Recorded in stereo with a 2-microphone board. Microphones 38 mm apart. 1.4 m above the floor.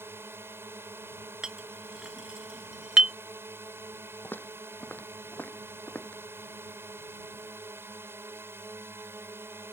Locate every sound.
0.0 s a drone: 80° right
1.4 s a clink: 20° right (ahead or behind)
4.2 s footsteps: 55° left (ahead or behind); by 6.2 s 40° left (ahead or behind)